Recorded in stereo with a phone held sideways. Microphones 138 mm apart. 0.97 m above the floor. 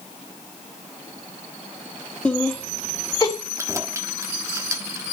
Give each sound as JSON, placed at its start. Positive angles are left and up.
{"t": 2.2, "sound": "laughter", "side_deg": 5, "distance_m": 1.5}
{"t": 3.6, "sound": "keys jangling", "side_deg": -20, "distance_m": 1.2}